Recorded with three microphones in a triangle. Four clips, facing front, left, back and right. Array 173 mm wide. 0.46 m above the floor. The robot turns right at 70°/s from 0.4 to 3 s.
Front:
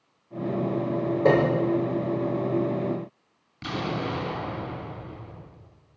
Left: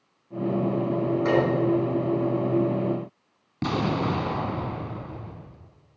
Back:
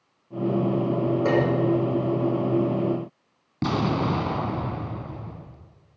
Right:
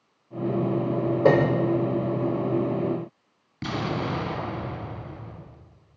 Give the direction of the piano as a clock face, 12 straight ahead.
2 o'clock.